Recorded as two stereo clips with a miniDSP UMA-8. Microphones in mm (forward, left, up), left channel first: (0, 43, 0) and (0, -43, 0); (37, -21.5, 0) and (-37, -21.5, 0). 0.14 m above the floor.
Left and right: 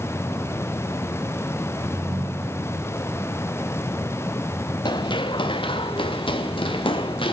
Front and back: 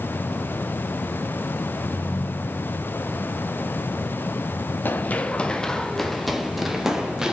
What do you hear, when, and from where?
1.9 s a ringtone: 45° right, 2.5 m
4.8 s running footsteps: 60° left, 1.0 m; by 7.3 s 95° left, 2.5 m